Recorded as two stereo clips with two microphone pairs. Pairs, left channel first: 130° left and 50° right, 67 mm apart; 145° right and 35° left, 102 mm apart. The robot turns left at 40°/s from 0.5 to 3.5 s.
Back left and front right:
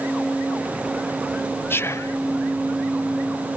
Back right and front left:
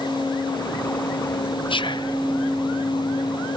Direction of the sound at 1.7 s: Straight behind.